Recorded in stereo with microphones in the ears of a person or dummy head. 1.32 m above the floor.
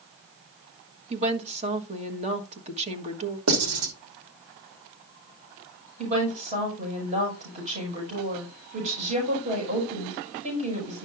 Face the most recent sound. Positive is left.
turn(degrees=-35)  # may be behind; listen again after turning